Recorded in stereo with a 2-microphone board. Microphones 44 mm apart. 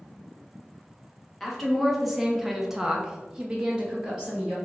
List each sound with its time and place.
1.4 s a woman speaking: 5° left (ahead or behind), 1.2 m; by 4.5 s 15° right (ahead or behind), 1.2 m